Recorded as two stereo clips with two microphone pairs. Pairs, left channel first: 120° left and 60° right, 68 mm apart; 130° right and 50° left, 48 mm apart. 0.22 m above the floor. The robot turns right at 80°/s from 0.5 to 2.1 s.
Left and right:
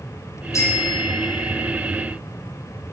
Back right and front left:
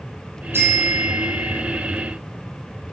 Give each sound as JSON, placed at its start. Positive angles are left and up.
{"t": 0.5, "sound": "a bicycle bell", "azimuth_deg": 80, "distance_m": 5.0}